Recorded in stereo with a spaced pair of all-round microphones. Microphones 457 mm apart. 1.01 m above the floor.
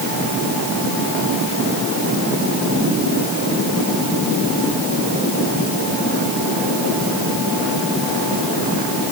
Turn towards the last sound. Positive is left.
No sound to turn to.